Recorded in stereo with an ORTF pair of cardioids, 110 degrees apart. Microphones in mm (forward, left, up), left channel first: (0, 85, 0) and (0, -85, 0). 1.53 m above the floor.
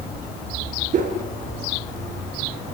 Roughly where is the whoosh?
Ahead right.